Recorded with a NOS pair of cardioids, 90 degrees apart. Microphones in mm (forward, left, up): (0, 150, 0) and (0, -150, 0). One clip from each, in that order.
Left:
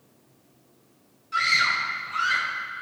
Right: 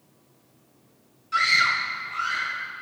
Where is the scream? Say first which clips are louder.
Right 1 dB; 20° right, 1.4 m; by 2.5 s 30° left, 2 m.